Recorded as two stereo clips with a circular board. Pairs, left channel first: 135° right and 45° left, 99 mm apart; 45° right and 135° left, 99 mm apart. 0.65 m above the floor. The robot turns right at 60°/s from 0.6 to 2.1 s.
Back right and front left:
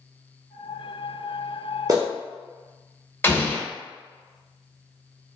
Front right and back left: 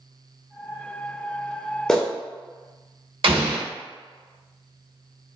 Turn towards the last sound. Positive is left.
turn(degrees=160)